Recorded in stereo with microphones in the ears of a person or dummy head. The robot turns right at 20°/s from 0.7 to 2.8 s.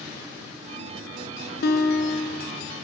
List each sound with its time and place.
1.6 s a guitar: 50° left (ahead or behind), 0.6 m; by 2.5 s 55° left (ahead or behind), 0.6 m